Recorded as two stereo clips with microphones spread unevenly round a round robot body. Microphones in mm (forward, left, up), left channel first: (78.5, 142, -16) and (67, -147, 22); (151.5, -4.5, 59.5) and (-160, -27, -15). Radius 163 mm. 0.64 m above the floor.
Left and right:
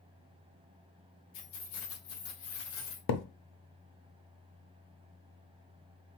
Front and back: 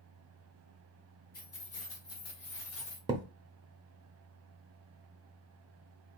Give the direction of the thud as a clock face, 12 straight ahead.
8 o'clock.